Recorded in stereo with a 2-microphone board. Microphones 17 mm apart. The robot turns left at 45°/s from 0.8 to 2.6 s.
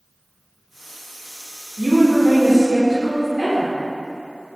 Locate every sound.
1.8 s a woman speaking: 100° right, 0.8 m; by 3.7 s 140° right, 0.8 m